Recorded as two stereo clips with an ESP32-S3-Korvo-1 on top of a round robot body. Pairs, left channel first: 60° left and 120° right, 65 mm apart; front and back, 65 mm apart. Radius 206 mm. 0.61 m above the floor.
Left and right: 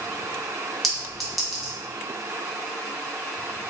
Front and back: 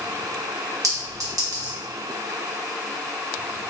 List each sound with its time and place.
0.8 s a clink: 145° left, 1.4 m